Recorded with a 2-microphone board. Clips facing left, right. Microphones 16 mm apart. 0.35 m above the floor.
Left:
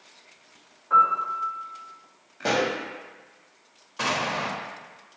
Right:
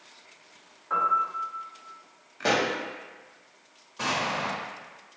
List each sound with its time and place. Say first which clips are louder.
0.9 s a piano: left 5 dB; 5° right (ahead or behind), 1.3 m
2.4 s a pop: even; 15° right (ahead or behind), 0.5 m
4.0 s an explosion: left 2 dB; 35° left (ahead or behind), 0.7 m